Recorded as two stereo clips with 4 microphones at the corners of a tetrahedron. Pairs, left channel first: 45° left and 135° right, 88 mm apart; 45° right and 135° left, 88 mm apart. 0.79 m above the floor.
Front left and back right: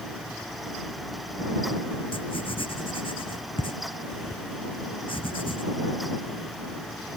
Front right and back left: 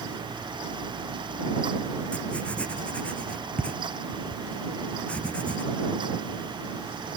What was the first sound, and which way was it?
Writing, 30° left.